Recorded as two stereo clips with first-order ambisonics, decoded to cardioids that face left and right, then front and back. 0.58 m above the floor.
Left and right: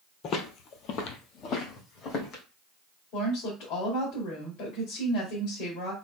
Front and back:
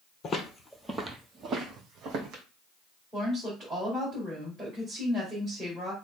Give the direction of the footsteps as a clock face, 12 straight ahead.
10 o'clock.